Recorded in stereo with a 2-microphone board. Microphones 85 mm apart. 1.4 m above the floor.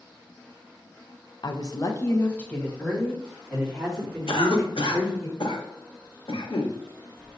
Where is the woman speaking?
60° left (ahead or behind), 0.6 m; by 5.3 s centre (ahead or behind), 3.5 m.